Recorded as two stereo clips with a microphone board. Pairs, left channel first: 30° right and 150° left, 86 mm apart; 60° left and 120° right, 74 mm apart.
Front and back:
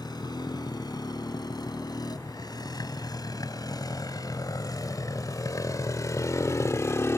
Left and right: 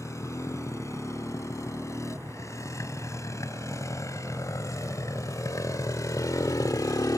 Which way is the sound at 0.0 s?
10° left.